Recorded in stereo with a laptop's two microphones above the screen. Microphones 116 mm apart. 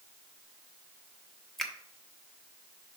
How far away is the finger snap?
About 1.2 m.